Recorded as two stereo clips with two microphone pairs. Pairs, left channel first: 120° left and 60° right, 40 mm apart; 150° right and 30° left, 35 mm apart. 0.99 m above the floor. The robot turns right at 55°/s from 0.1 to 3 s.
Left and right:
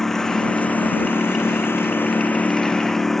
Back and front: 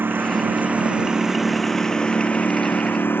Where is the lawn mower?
40° left; by 3.2 s 160° right.